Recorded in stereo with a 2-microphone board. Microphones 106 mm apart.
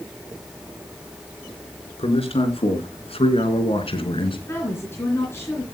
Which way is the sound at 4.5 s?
20° left (ahead or behind).